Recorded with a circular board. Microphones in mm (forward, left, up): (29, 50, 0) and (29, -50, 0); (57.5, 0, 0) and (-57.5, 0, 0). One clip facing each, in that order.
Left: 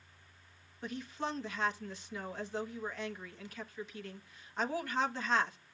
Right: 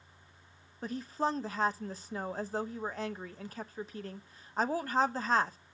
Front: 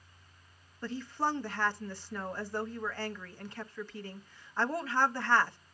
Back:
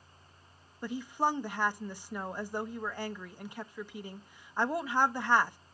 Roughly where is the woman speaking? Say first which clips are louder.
Right 6 dB, back 2 dB; right.